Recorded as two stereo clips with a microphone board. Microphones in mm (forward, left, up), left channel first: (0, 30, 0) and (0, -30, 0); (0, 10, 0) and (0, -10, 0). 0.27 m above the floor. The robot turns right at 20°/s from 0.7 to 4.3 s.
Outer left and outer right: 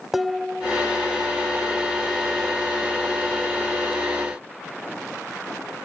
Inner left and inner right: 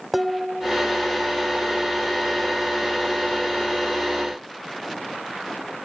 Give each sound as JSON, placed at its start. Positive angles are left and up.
{"t": 0.1, "sound": "dishes clattering", "side_deg": -5}